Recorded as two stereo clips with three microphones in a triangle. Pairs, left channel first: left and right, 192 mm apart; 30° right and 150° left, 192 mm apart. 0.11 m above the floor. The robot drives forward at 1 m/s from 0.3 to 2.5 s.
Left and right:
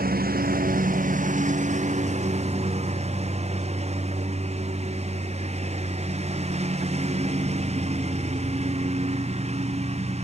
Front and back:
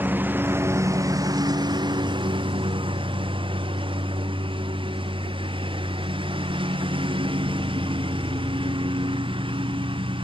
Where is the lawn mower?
130° right; by 10.2 s 145° right.